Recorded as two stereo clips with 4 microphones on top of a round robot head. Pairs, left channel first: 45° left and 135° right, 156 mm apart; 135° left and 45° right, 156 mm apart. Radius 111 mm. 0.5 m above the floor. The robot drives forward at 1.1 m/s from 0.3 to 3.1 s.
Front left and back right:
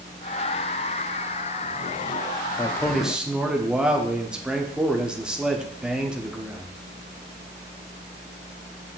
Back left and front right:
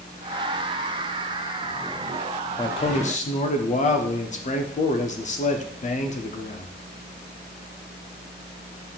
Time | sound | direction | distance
2.6 | a man speaking | 85° left | 0.7 m